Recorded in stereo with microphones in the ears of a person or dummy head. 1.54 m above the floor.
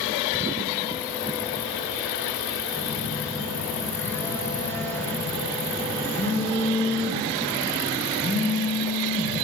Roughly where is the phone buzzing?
Centre.